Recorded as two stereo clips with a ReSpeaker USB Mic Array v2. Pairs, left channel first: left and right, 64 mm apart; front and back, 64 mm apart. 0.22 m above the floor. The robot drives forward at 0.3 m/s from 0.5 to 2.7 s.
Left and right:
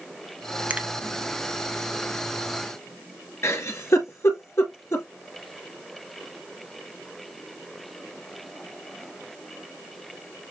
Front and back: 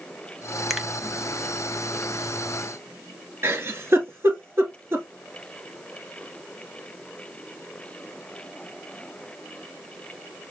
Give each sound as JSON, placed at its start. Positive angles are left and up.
{"t": 0.7, "sound": "a finger snap", "azimuth_deg": -95, "distance_m": 0.8}
{"t": 3.4, "sound": "a giggle", "azimuth_deg": 130, "distance_m": 1.3}